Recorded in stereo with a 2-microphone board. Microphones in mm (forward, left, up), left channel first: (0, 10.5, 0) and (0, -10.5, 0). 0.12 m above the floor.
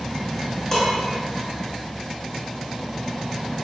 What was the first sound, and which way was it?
Dishes clattering, 25° left (ahead or behind).